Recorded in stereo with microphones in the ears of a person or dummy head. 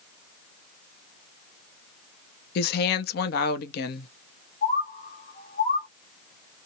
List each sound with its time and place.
2.5 s a woman speaking: 50° left (ahead or behind), 0.6 m
4.6 s a bird: 50° left (ahead or behind), 1.1 m